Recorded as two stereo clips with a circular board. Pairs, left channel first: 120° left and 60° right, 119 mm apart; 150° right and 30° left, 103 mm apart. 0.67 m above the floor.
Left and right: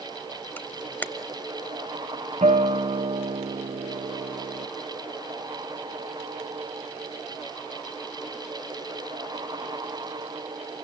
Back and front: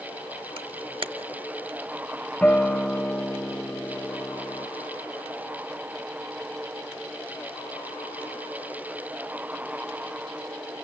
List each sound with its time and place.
0.6 s a camera shutter: 50° left, 0.8 m
2.4 s a guitar: 70° right, 1.0 m